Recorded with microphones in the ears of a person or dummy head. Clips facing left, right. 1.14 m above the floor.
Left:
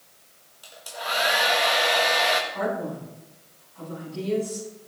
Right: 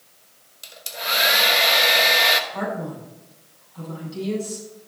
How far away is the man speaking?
About 5 m.